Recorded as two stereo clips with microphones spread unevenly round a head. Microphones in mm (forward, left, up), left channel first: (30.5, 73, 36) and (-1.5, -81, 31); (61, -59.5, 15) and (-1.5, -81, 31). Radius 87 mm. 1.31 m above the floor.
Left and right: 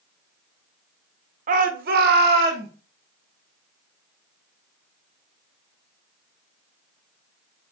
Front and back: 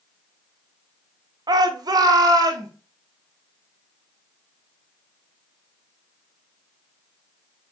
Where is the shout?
150° right, 0.7 m; by 2.7 s 135° right, 1.5 m.